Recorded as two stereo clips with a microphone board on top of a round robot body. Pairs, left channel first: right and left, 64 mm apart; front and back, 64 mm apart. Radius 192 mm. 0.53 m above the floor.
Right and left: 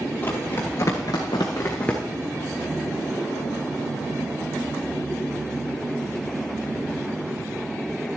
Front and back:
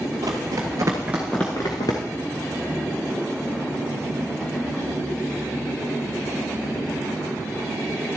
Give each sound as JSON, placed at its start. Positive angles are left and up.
{"t": 0.2, "sound": "running footsteps", "azimuth_deg": -150, "distance_m": 1.3}